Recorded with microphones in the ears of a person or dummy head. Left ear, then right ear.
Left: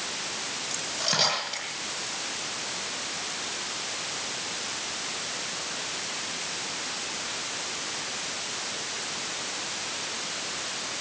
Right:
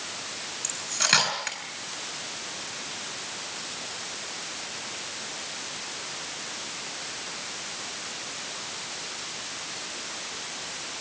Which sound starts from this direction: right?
Cutlery clinking, at 0.6 s.